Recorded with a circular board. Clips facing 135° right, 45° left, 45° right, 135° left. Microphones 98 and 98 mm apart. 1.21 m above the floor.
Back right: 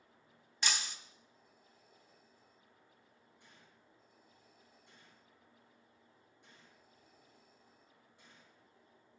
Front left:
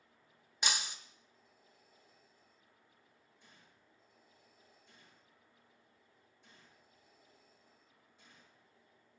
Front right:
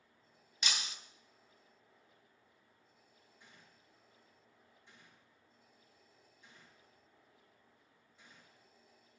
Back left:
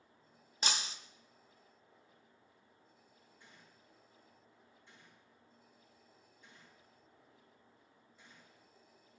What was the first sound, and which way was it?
Breaking glass, 110° left.